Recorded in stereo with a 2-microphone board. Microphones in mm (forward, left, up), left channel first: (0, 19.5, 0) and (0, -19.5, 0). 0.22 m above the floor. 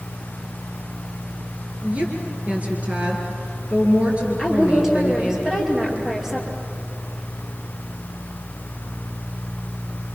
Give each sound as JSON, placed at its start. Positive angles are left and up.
{"t": 1.8, "sound": "a woman speaking", "side_deg": -35, "distance_m": 4.5}
{"t": 4.4, "sound": "a woman speaking", "side_deg": -10, "distance_m": 5.5}